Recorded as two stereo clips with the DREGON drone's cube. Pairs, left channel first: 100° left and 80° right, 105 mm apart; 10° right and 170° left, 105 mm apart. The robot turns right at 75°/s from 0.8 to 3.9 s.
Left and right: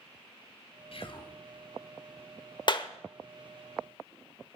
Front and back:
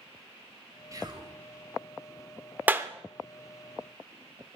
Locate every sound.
0.9 s whispering: 115° left, 2 m; by 1.4 s 150° left, 2 m
2.7 s a clap: 100° left, 0.9 m; by 2.9 s 115° left, 0.9 m